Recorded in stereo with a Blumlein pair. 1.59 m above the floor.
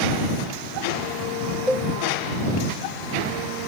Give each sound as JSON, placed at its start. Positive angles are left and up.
{"t": 1.7, "sound": "a cowbell", "azimuth_deg": 0}